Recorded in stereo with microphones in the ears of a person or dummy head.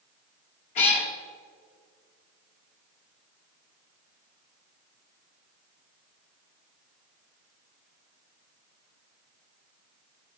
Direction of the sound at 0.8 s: 40° left (ahead or behind).